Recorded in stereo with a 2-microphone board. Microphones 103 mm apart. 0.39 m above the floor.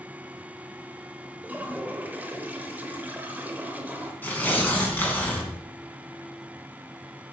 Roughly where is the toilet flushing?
Centre.